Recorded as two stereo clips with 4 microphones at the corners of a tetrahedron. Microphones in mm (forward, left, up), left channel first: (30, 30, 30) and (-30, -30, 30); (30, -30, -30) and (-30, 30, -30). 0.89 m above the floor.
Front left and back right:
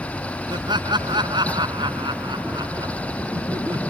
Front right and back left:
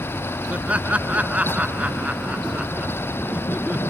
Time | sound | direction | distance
0.5 | laughter | 150° right | ?